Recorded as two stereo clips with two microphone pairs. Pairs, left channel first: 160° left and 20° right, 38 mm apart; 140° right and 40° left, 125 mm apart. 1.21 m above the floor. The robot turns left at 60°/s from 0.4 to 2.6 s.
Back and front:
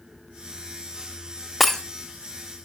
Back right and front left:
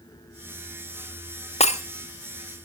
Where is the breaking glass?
115° right, 1.3 m; by 1.8 s 125° right, 1.3 m.